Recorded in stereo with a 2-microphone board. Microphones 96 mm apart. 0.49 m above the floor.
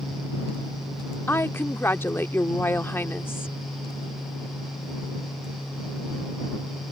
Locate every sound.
1.3 s a woman speaking: 25° left (ahead or behind)